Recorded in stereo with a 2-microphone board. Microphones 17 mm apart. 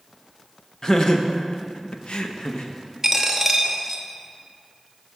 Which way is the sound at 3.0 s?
20° right (ahead or behind).